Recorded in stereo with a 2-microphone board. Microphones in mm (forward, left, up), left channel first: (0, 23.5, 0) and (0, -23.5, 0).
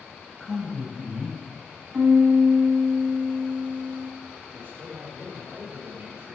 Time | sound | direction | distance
0.4 | a man speaking | 5° left (ahead or behind) | 1.4 m
1.9 | a piano | 45° right (ahead or behind) | 1.0 m
4.5 | a man speaking | 50° right (ahead or behind) | 3 m